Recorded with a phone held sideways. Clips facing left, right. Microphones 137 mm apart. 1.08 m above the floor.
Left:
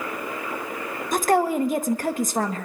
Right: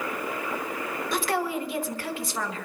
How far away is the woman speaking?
About 1.1 m.